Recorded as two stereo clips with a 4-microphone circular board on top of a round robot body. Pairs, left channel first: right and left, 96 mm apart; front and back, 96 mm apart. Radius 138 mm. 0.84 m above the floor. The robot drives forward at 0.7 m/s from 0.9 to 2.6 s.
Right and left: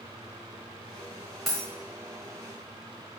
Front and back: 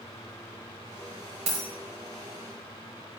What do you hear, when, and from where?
1.5 s a dropped coin: straight behind, 1.1 m